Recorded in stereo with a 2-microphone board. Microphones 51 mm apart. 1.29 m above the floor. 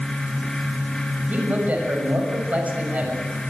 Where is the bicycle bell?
I don't hear a bicycle bell.